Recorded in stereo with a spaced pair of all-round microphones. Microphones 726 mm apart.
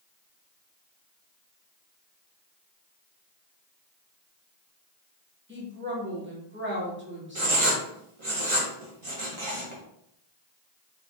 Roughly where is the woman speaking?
Centre.